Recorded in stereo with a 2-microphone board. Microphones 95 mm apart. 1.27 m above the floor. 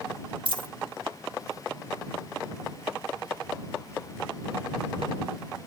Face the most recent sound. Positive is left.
turn(degrees=-60)  # may be behind; listen again after turning